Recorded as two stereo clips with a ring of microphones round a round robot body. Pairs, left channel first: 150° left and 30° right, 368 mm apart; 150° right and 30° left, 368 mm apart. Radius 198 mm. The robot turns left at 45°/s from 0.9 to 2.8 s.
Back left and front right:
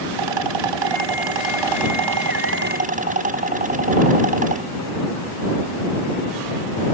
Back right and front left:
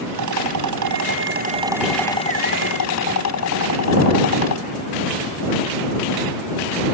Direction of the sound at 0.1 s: 15° right.